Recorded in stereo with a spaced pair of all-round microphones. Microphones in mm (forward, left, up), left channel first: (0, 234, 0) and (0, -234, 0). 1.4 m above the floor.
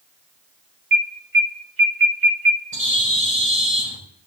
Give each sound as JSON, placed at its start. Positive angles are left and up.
{"t": 0.9, "sound": "an alarm", "side_deg": -85, "distance_m": 2.5}
{"t": 2.7, "sound": "a bird", "side_deg": -25, "distance_m": 4.5}